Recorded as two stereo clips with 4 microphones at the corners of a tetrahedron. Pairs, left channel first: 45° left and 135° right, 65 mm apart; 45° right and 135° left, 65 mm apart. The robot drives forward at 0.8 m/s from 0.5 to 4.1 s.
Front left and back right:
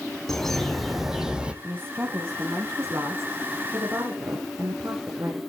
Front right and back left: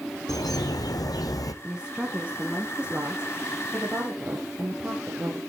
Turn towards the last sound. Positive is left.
turn(degrees=-175)